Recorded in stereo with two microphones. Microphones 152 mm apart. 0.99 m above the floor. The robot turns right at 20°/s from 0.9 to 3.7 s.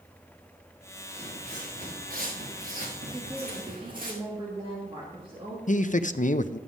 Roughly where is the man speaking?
Left.